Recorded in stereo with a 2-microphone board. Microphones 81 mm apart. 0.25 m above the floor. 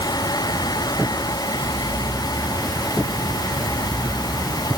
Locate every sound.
Only background noise.